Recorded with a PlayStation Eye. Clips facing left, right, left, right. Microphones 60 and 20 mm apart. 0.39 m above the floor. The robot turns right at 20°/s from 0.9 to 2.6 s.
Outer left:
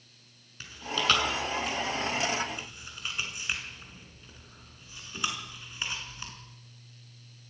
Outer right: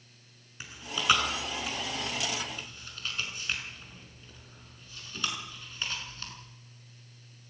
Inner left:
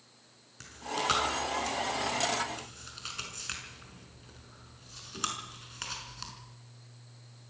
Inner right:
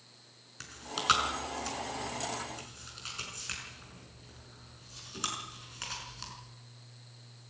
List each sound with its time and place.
0.6 s chewing: 15° right (ahead or behind), 5 m; by 6.3 s 15° left (ahead or behind), 5 m